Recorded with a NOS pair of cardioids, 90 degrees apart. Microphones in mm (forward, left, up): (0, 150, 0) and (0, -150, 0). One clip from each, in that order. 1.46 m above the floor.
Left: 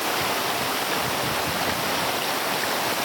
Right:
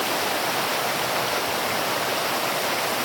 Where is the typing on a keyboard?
No typing on a keyboard in this recording.